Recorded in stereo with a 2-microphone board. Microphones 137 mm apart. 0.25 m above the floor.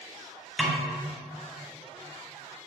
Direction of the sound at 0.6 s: 5° right (ahead or behind).